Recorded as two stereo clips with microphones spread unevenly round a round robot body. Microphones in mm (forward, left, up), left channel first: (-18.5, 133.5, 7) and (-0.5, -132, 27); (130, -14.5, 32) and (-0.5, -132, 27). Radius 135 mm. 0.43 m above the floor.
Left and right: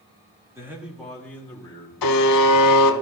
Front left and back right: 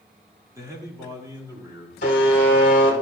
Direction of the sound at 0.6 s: 155° right.